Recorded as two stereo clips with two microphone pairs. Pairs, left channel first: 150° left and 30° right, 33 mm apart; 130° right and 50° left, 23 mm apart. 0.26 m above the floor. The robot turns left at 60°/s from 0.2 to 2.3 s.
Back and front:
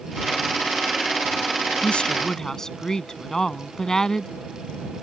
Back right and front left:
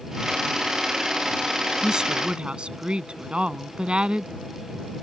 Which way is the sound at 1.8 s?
110° left.